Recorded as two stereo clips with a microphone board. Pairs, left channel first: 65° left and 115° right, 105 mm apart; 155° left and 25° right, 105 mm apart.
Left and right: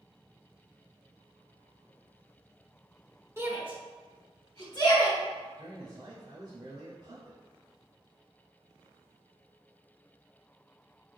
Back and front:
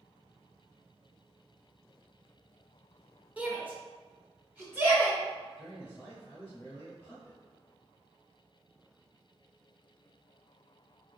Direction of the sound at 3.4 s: 85° right.